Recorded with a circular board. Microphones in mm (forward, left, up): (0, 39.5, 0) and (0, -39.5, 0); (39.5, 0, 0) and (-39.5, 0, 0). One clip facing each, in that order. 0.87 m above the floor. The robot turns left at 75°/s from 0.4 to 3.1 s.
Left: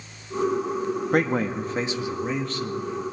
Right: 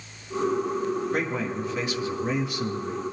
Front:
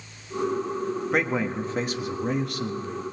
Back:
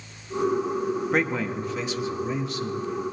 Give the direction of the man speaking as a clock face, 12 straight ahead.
9 o'clock.